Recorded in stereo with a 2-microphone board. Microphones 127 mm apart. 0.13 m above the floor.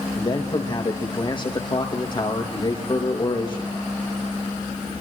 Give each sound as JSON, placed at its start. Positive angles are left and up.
{"t": 0.2, "sound": "a man speaking", "side_deg": 40, "distance_m": 5.0}